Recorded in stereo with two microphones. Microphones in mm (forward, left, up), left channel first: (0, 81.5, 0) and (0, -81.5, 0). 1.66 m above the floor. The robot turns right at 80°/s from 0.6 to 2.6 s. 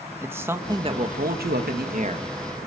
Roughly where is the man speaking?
Behind.